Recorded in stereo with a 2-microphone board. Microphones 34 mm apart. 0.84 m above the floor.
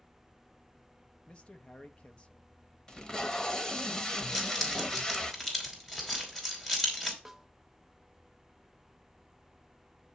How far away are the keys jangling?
About 2.5 m.